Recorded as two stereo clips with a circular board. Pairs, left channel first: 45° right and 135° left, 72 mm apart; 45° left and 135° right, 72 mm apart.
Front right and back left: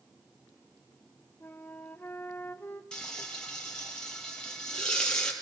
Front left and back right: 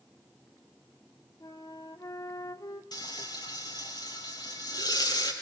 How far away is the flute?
About 1.9 m.